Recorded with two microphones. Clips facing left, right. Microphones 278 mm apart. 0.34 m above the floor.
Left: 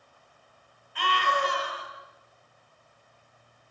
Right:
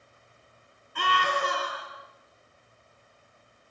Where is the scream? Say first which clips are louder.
Even; 50° right (ahead or behind), 7 m.